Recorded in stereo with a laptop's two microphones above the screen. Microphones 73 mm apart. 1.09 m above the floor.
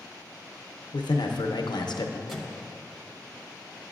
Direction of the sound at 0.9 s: 80° left.